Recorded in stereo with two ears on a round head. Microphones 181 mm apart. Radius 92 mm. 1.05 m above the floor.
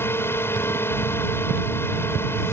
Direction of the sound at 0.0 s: 10° left (ahead or behind).